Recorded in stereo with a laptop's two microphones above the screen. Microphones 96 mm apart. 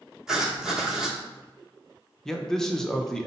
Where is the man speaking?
5° left (ahead or behind), 0.6 m.